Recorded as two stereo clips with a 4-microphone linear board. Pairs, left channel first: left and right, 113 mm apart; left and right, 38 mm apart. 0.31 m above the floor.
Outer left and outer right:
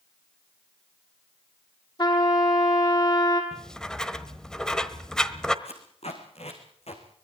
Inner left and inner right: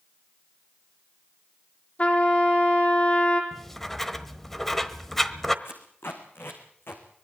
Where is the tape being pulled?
75° left (ahead or behind), 3.5 m.